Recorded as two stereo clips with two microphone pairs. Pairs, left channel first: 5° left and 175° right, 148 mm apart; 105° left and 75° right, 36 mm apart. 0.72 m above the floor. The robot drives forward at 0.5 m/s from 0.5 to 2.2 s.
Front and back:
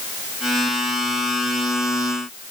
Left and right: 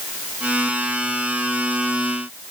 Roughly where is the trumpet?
No trumpet in this recording.